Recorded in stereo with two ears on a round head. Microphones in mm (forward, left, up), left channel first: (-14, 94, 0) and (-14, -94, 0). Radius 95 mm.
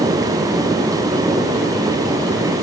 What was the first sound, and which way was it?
Only background noise.